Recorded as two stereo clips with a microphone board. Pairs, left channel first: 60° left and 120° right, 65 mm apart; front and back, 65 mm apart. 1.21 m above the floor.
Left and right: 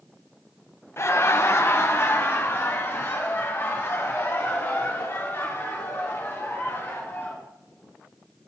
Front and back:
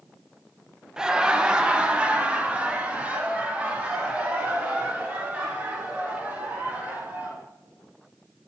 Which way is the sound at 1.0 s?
100° left.